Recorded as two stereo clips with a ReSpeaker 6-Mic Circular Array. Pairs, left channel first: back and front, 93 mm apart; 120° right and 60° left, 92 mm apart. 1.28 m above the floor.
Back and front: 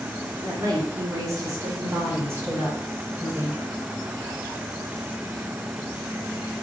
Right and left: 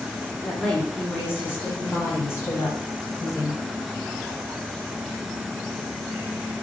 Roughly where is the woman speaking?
Ahead right.